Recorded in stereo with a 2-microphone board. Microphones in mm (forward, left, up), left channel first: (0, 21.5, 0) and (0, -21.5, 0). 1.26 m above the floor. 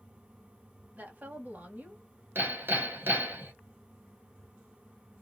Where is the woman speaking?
35° right (ahead or behind), 1.0 m.